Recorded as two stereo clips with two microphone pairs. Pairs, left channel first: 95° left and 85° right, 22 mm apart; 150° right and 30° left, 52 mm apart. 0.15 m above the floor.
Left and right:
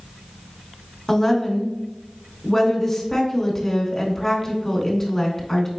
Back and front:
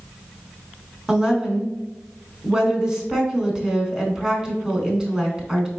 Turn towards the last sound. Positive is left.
turn(degrees=70)